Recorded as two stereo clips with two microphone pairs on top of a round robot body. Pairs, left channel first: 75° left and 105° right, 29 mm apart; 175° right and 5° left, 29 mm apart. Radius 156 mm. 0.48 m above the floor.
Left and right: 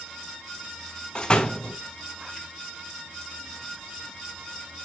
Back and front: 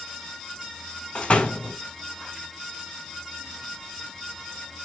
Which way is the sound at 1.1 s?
140° left.